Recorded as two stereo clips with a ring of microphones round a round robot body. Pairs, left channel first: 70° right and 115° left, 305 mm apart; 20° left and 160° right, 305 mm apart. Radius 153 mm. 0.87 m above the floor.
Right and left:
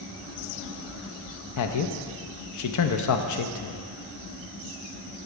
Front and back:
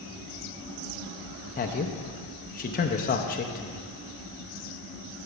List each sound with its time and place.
1.6 s a man speaking: 40° right, 0.5 m